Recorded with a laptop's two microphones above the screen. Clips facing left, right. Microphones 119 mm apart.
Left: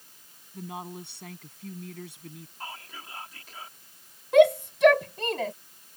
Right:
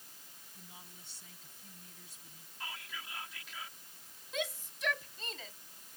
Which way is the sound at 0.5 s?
70° left (ahead or behind).